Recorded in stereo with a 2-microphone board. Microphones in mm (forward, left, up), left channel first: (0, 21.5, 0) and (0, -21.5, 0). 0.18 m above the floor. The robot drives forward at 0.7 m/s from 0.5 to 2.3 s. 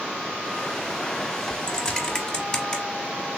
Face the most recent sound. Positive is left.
turn(degrees=15)  # may be behind; listen again after turning